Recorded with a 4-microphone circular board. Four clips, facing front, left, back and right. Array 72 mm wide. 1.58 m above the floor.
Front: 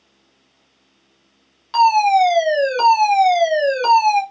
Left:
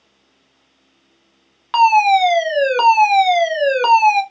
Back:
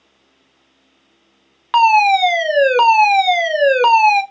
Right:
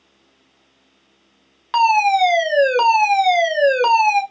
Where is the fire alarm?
170° left, 1.0 m.